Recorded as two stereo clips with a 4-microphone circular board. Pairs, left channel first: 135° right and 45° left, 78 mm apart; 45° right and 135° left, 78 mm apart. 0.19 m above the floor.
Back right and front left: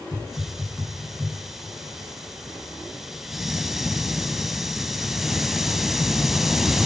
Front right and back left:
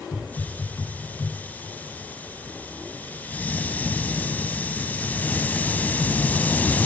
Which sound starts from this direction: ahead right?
A hiss, at 0.1 s.